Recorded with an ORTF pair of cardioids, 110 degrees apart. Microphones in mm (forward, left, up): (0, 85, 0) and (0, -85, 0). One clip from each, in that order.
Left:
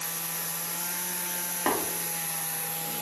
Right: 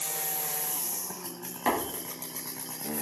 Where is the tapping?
10° left, 1.4 m.